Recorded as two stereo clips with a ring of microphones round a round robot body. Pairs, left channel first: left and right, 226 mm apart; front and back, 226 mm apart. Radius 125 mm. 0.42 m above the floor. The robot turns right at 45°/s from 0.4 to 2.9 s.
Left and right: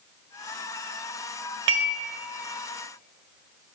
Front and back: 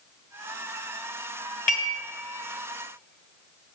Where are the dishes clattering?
55° right, 1.6 m; by 1.9 s 45° right, 1.6 m.